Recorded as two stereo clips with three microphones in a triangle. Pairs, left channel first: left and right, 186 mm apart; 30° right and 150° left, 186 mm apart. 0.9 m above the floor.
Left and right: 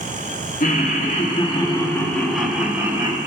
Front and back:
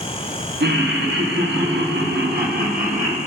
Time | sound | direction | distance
0.6 | laughter | 130° left | 1.4 m